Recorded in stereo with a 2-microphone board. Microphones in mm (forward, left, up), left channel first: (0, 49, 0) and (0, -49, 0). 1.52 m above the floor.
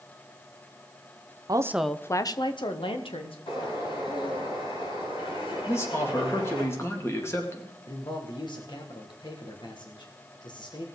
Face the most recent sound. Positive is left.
turn(degrees=50)  # may be behind; listen again after turning